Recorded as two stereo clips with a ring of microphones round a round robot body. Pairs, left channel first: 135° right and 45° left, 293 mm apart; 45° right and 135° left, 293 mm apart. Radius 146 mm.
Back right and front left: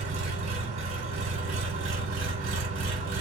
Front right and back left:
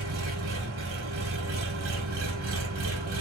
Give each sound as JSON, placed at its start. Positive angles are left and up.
{"t": 0.0, "sound": "an engine running", "azimuth_deg": 90, "distance_m": 1.1}